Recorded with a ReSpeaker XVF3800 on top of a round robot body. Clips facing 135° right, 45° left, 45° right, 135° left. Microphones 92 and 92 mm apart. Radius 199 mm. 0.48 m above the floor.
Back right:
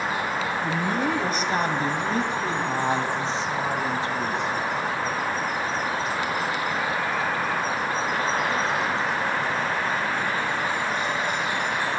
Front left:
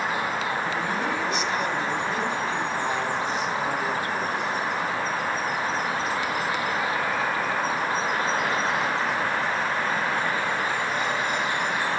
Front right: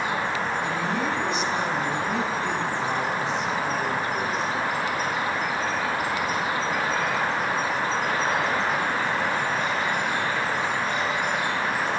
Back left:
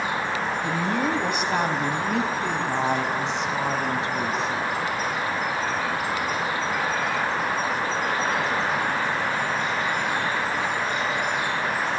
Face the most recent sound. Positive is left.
turn(degrees=155)